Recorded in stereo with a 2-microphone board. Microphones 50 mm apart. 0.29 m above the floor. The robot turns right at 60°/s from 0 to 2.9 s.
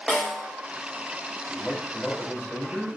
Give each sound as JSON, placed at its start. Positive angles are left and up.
{"t": 0.1, "sound": "a snare drum", "side_deg": 15, "distance_m": 1.1}
{"t": 1.5, "sound": "a man speaking", "side_deg": 5, "distance_m": 1.2}